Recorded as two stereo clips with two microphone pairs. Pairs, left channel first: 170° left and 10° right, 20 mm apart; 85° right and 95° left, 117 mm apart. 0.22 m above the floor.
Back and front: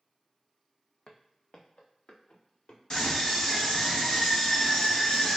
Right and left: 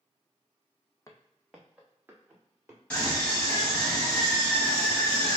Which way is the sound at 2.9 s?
160° right.